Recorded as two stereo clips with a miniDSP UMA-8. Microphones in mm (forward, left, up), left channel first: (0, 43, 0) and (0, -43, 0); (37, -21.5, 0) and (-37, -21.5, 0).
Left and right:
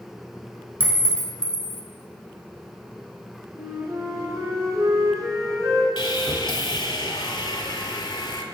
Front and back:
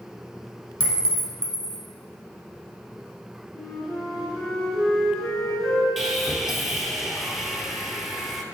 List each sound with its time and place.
0.8 s a clink: 40° left, 0.9 m
3.5 s a flute: 85° right, 1.7 m
6.0 s sawing: 90° left, 0.6 m